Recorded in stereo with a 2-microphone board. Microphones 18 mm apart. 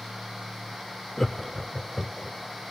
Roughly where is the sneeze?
I don't hear a sneeze.